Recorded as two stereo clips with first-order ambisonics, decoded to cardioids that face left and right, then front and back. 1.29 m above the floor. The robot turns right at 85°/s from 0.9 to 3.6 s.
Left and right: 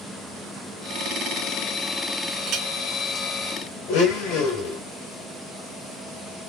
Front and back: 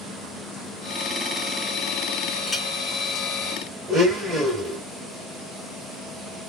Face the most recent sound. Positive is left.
turn(degrees=100)